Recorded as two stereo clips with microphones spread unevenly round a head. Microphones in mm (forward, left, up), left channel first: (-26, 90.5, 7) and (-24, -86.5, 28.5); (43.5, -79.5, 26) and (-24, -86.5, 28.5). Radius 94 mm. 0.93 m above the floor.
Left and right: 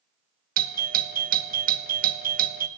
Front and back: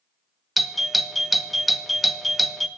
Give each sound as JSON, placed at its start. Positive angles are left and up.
{"t": 0.6, "sound": "a doorbell", "azimuth_deg": -85, "distance_m": 0.7}